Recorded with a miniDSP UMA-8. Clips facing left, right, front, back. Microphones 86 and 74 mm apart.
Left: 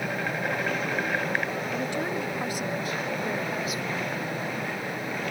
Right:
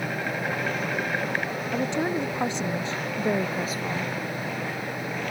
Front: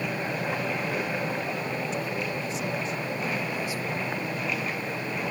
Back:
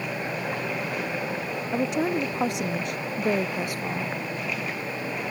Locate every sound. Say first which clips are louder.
1.7 s a woman speaking: right 7 dB, back 6 dB; 160° right; by 4.2 s 145° right